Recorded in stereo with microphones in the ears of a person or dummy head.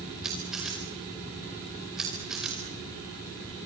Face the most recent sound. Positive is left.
turn(degrees=-5)  # may be behind; listen again after turning